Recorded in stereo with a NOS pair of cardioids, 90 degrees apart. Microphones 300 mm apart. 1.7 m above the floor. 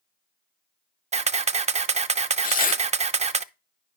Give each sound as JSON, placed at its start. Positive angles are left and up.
{"t": 1.1, "sound": "a camera shutter", "azimuth_deg": -25, "distance_m": 0.5}
{"t": 2.4, "sound": "tearing paper", "azimuth_deg": 30, "distance_m": 0.7}